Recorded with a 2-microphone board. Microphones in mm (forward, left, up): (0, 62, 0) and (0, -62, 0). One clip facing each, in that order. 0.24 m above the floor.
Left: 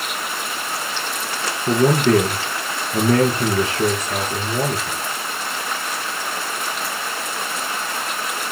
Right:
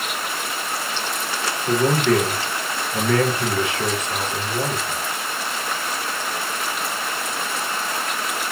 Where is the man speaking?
35° left (ahead or behind), 3.5 m.